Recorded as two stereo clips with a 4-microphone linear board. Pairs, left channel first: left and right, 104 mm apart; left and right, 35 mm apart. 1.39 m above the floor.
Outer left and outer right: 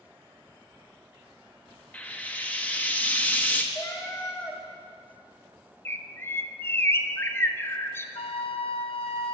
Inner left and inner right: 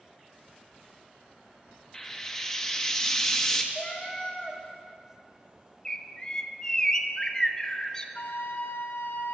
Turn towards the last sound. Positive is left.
turn(degrees=65)  # may be behind; listen again after turning